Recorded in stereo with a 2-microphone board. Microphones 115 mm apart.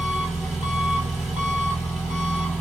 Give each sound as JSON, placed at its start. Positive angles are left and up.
{"t": 0.0, "sound": "an engine running", "side_deg": 0, "distance_m": 1.1}